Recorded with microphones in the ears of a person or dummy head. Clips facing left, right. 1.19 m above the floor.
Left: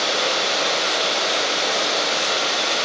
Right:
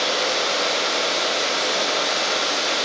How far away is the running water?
About 1.3 m.